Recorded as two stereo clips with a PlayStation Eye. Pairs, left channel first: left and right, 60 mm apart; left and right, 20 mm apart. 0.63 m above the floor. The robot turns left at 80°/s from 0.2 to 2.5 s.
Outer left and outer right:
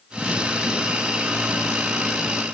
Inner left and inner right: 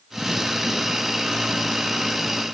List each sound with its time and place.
Only background noise.